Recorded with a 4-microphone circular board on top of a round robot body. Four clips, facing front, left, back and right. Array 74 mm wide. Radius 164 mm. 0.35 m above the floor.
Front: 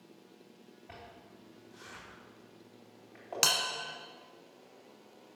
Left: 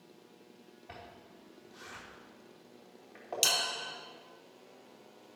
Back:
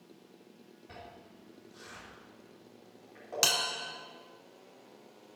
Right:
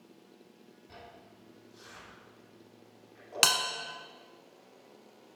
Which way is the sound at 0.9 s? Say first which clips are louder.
Left 1 dB, back 1 dB; 60° left.